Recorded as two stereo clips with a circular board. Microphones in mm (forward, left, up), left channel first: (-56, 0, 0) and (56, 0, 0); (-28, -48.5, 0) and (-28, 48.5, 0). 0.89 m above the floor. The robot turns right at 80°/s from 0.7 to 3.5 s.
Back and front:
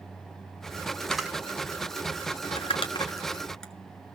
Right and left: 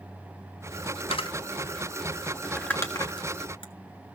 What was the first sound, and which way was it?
A camera shutter, 95° right.